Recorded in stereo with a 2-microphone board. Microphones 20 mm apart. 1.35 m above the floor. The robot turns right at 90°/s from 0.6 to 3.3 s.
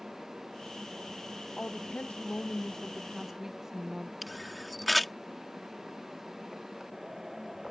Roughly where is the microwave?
No microwave in this recording.